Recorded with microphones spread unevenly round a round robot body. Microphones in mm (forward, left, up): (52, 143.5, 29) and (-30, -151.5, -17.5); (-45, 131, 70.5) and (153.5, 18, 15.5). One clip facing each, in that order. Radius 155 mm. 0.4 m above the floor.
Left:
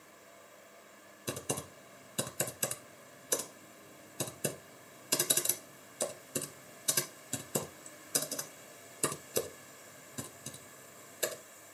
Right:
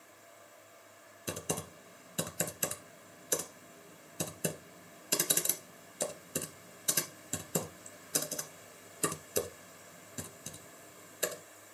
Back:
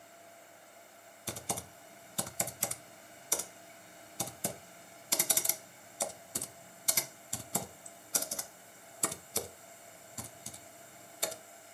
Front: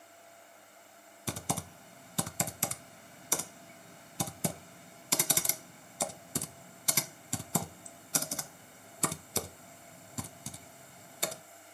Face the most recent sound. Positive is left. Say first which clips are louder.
# even, front 4 dB
turn(degrees=-15)